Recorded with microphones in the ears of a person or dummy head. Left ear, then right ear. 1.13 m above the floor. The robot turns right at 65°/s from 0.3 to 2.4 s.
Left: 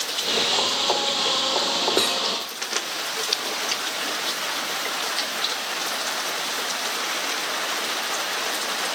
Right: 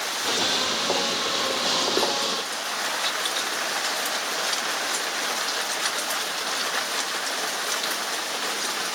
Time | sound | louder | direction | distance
2.0 | cutlery clinking | left 2 dB | 30° left (ahead or behind) | 0.5 m